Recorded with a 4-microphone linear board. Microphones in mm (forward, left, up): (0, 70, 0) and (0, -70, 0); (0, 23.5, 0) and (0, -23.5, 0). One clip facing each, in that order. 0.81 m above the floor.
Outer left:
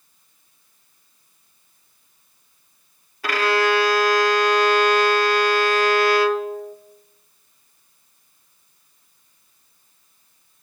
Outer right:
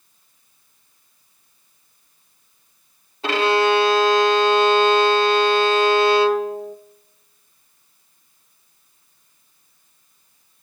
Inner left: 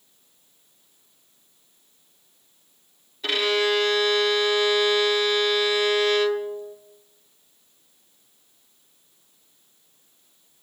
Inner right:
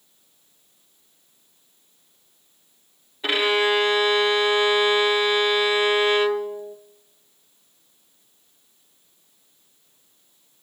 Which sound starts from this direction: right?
A violin, at 3.2 s.